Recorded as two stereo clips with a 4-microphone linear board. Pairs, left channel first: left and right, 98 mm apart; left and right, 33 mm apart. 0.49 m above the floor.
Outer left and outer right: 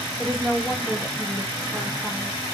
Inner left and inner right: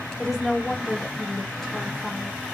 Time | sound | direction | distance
0.2 | a woman speaking | centre (ahead or behind) | 0.9 m